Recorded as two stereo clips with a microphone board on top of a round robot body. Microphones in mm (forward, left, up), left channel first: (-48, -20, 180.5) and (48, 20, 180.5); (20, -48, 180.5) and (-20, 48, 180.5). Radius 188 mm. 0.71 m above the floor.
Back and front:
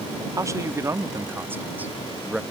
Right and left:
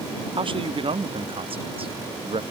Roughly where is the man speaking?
Left.